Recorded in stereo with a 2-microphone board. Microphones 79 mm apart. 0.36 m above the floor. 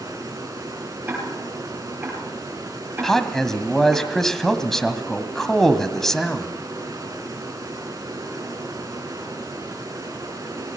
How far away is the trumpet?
I don't hear a trumpet.